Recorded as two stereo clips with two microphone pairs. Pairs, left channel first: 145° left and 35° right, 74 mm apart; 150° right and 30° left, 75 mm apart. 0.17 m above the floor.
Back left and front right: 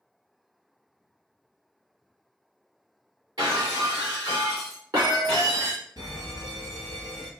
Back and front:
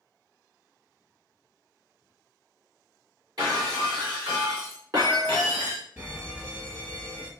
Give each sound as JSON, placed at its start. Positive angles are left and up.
{"t": 3.4, "sound": "breaking glass", "azimuth_deg": -5, "distance_m": 2.5}
{"t": 6.0, "sound": "an alarm", "azimuth_deg": -25, "distance_m": 1.8}